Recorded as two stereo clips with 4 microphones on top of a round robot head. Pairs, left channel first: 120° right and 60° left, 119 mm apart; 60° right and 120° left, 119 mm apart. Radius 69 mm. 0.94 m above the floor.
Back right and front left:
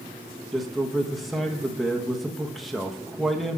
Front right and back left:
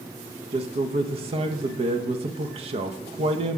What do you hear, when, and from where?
0.5 s a man speaking: 150° left, 1.1 m